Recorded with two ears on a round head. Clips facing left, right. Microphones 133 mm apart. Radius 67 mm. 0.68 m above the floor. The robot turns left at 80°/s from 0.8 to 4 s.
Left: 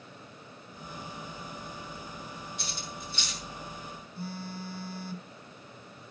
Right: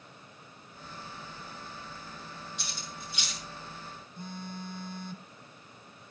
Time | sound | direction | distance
2.6 | cutlery clinking | 60° right (ahead or behind) | 6 m
4.2 | a phone buzzing | 5° left (ahead or behind) | 1.7 m